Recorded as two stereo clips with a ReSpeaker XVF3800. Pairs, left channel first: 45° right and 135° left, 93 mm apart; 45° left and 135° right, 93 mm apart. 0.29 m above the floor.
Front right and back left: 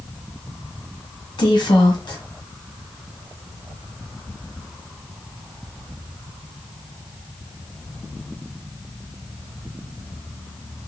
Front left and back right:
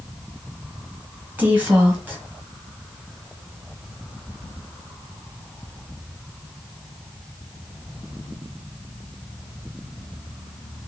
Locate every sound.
1.4 s a woman speaking: 70° right, 1.6 m